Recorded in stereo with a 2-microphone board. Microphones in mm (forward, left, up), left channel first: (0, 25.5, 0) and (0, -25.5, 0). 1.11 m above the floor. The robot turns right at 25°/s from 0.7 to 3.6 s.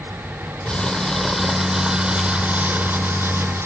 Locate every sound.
0.7 s crumpling: 160° left; by 3.7 s 125° right